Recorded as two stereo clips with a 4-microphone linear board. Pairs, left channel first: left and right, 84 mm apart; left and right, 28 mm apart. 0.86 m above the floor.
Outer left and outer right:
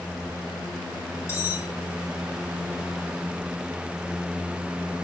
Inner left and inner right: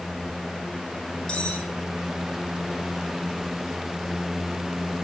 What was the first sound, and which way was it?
Cutlery clinking, 30° left (ahead or behind).